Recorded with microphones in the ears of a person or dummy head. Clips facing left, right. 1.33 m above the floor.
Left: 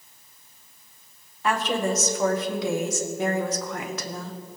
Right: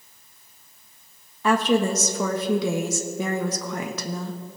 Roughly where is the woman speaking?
Right.